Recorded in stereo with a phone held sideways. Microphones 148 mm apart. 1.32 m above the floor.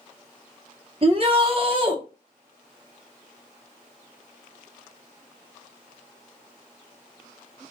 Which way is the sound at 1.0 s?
40° right (ahead or behind).